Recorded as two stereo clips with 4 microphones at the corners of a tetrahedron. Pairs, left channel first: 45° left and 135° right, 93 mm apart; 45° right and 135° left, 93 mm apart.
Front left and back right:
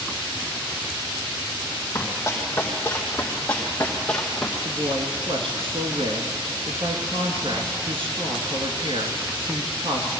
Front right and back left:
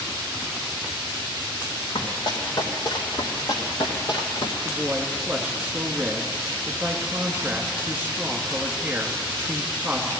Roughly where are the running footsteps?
Ahead.